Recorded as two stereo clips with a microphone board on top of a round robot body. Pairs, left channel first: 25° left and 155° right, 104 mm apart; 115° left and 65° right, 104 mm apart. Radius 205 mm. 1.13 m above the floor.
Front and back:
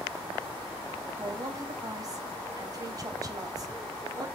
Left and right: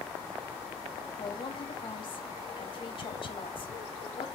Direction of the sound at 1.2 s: 150° left.